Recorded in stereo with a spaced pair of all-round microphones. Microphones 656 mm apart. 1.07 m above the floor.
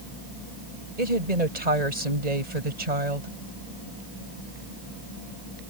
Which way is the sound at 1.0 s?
80° right.